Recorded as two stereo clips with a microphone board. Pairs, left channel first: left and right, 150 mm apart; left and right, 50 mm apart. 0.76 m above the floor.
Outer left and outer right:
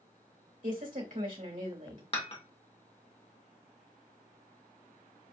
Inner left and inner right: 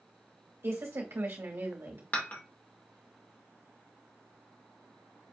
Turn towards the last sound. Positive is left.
turn(degrees=40)  # may be behind; listen again after turning